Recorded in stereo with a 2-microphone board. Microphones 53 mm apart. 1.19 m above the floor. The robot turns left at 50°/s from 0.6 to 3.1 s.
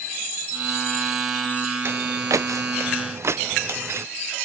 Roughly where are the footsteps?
Right.